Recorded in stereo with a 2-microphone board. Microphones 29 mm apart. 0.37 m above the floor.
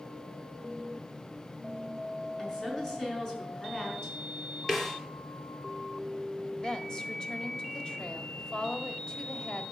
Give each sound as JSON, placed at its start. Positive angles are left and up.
{"t": 2.4, "sound": "a woman speaking", "side_deg": 15, "distance_m": 5.5}
{"t": 4.7, "sound": "a snare drum", "side_deg": 10, "distance_m": 3.0}
{"t": 6.6, "sound": "a woman speaking", "side_deg": 25, "distance_m": 1.7}